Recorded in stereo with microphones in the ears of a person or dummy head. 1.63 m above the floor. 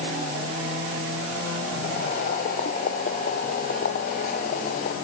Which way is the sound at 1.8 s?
50° left (ahead or behind).